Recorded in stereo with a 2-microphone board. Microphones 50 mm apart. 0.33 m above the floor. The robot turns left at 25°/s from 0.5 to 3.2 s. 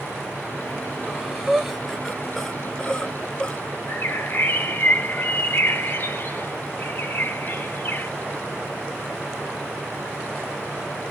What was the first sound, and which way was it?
Breathing, 15° right (ahead or behind).